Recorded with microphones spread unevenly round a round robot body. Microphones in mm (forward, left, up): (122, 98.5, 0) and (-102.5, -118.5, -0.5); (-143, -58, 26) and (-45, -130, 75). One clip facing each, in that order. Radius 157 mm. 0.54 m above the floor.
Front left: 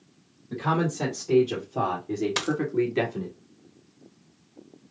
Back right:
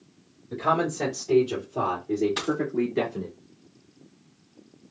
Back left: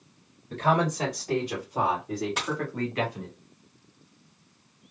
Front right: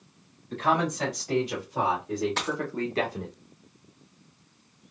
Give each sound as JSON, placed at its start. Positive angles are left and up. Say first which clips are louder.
{"t": 0.5, "sound": "a man speaking", "louder": "even, back left 1 dB", "azimuth_deg": 125, "distance_m": 2.5}
{"t": 2.4, "sound": "a dropped coin", "louder": "back right 1 dB, front right 1 dB", "azimuth_deg": 65, "distance_m": 1.1}